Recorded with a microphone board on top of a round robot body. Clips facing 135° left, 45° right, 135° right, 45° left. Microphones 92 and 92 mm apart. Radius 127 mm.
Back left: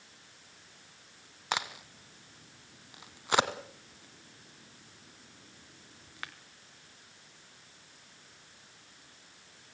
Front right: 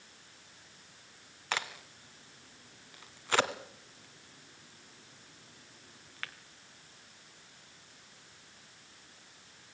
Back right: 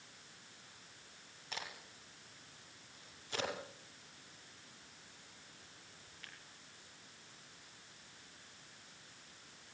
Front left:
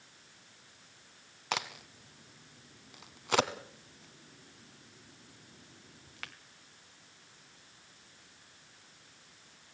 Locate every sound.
1.5 s a crack: 60° left, 1.6 m